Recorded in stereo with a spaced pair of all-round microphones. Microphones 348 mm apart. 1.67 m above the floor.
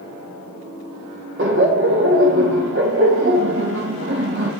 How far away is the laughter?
About 0.8 m.